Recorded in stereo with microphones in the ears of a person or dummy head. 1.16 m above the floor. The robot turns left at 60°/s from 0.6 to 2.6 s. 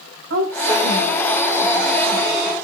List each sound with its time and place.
0.3 s a woman speaking: 105° right, 8.5 m; by 2.5 s 135° left, 8.5 m